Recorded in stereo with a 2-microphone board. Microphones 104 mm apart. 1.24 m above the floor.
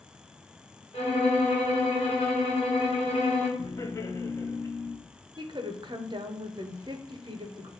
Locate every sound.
0.9 s a violin: 70° left (ahead or behind), 1.6 m
3.6 s laughter: 30° left (ahead or behind), 0.5 m
5.4 s a woman speaking: 45° right (ahead or behind), 0.6 m